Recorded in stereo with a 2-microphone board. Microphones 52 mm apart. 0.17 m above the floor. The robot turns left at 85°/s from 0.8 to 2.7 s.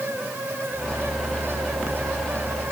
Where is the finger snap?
I don't hear a finger snap.